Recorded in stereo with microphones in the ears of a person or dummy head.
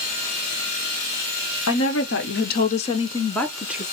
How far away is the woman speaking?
About 1.2 m.